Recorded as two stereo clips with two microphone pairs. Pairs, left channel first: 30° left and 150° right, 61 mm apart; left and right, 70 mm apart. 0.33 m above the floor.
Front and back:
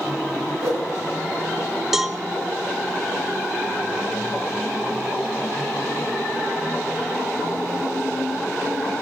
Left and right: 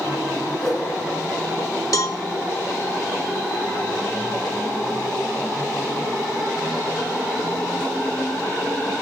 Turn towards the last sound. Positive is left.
turn(degrees=125)